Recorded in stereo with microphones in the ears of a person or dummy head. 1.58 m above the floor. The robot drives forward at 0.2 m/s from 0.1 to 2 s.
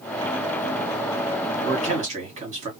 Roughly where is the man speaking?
Right.